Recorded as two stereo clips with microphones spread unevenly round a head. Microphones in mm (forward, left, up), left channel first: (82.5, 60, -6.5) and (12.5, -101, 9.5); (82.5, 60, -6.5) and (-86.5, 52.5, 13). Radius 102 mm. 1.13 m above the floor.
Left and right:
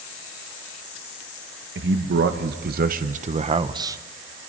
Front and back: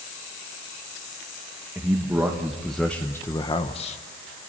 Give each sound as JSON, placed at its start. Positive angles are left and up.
{"t": 1.8, "sound": "a man speaking", "azimuth_deg": -100, "distance_m": 1.4}